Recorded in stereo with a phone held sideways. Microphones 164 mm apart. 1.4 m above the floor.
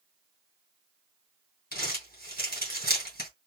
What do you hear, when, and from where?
1.7 s crumpling: 70° left (ahead or behind), 2.5 m